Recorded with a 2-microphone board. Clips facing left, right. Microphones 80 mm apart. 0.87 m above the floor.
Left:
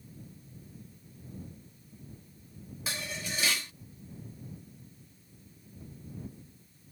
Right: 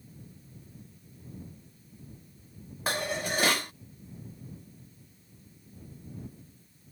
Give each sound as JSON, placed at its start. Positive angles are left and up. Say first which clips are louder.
{"t": 2.9, "sound": "dishes clattering", "louder": "right 8 dB", "side_deg": -50}